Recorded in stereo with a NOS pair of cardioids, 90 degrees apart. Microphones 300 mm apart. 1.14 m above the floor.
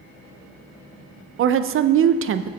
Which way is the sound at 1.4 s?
45° right.